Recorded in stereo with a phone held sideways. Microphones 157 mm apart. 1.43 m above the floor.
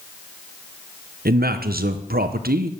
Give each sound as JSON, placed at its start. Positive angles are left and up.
{"t": 1.2, "sound": "a man speaking", "side_deg": -85, "distance_m": 0.8}